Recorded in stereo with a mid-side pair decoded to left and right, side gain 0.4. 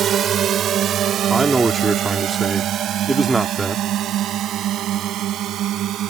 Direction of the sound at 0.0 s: 65° right.